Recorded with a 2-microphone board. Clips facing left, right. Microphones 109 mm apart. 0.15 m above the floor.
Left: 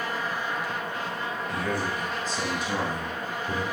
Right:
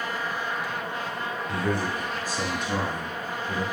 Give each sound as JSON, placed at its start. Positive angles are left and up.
{"t": 1.5, "sound": "a man speaking", "side_deg": -30, "distance_m": 2.0}